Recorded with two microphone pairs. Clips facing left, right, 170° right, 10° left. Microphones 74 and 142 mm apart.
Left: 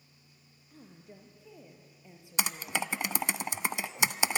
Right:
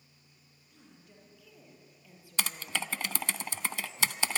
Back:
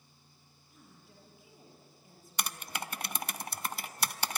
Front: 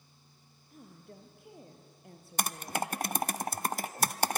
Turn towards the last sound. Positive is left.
turn(degrees=30)